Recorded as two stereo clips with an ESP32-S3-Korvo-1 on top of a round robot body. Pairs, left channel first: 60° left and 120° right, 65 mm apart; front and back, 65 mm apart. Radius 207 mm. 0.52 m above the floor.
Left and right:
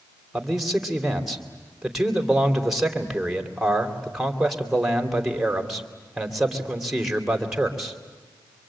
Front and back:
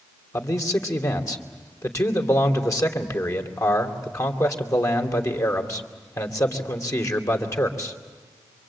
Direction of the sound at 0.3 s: 35° right.